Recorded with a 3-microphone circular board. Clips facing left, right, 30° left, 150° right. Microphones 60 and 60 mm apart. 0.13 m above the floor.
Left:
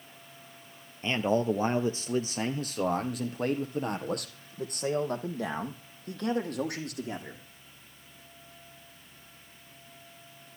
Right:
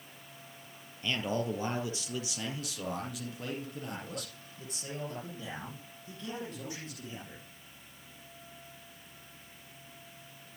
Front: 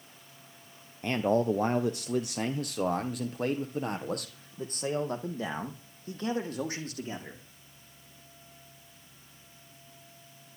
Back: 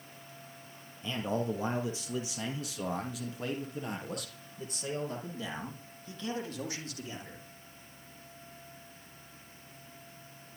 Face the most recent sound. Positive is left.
turn(degrees=75)